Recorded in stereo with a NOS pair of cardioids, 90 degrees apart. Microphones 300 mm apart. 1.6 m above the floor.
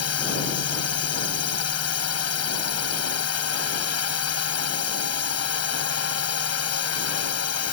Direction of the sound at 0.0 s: 55° left.